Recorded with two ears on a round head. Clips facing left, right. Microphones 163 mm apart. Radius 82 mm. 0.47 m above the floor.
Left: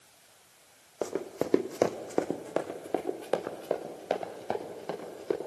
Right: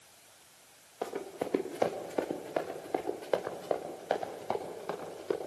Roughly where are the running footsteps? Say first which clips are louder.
Left 4 dB; left.